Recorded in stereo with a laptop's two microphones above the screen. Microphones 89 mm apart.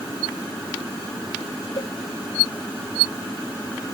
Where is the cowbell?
85° left.